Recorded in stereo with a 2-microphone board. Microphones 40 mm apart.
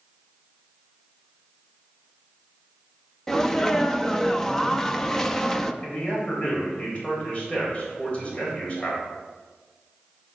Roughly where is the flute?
No flute in this recording.